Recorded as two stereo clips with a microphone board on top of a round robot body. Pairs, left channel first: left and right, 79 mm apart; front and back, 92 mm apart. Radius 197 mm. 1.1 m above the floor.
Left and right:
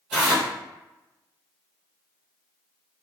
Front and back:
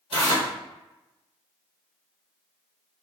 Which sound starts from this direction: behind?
Tearing paper, at 0.1 s.